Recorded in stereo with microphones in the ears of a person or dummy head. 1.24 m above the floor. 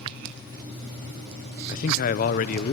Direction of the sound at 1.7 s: 45° left (ahead or behind).